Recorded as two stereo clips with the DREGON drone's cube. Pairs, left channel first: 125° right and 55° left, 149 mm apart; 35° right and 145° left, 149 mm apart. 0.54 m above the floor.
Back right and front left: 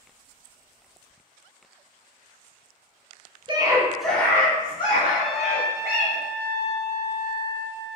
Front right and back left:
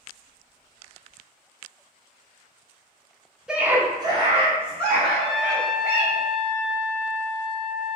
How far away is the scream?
About 0.7 m.